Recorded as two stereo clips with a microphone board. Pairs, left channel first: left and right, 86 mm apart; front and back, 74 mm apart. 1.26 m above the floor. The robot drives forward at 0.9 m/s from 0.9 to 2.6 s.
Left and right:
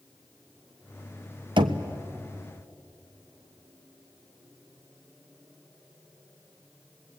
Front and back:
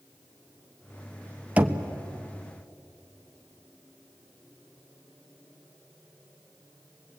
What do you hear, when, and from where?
1.6 s knocking: 110° right, 0.9 m; by 1.8 s 120° right, 1.0 m